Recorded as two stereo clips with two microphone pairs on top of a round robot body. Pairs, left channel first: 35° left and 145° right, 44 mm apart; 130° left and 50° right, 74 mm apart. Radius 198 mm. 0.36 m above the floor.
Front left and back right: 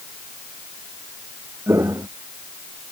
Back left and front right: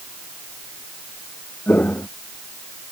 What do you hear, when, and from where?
1.7 s footsteps: 160° right